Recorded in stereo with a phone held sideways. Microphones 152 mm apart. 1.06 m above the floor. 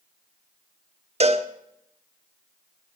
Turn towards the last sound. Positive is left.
turn(degrees=-45)  # may be behind; listen again after turning